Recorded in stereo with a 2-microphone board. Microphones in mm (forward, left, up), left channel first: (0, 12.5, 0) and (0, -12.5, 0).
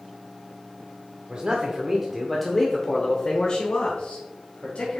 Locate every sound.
1.3 s a man speaking: 30° right (ahead or behind), 1.1 m; by 5.0 s 60° left (ahead or behind), 2 m